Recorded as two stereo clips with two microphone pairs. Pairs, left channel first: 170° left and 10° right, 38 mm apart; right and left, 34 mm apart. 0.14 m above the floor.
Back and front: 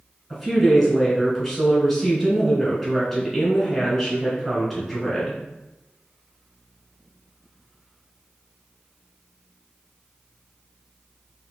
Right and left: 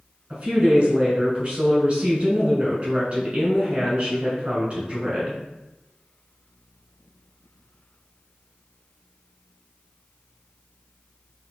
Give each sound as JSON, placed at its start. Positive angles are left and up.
{"t": 0.3, "sound": "a woman speaking", "azimuth_deg": 90, "distance_m": 1.7}